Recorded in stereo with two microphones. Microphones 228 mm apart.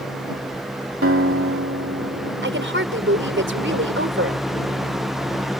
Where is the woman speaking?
60° right (ahead or behind).